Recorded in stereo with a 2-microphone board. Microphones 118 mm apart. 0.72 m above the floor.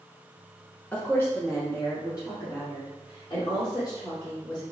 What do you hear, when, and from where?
0.9 s a woman speaking: 15° left (ahead or behind), 1.0 m; by 4.6 s 45° left (ahead or behind), 2.5 m